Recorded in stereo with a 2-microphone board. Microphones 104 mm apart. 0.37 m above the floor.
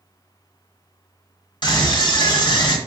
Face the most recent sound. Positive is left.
turn(degrees=50)  # may be behind; listen again after turning